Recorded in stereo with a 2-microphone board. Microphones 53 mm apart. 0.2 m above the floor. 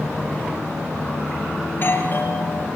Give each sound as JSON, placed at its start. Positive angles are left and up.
{"t": 1.7, "sound": "a doorbell", "side_deg": 40, "distance_m": 5.0}